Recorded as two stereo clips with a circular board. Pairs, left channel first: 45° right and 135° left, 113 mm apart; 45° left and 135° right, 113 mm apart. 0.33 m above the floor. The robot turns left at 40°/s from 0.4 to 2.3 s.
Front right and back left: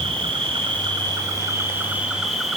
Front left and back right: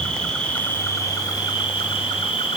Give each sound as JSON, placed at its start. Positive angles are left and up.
{"t": 0.0, "sound": "an insect", "azimuth_deg": 125, "distance_m": 1.4}